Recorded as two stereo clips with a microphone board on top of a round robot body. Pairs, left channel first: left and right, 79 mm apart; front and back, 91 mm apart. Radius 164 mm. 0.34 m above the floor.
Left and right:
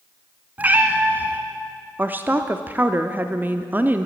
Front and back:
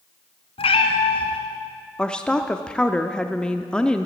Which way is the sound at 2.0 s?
65° right.